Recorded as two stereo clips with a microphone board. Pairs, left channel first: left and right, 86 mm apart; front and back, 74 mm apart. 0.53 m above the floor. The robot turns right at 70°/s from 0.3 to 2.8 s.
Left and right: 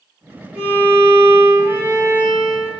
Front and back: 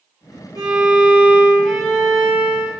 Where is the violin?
175° right, 1.7 m; by 2.7 s 20° right, 1.7 m.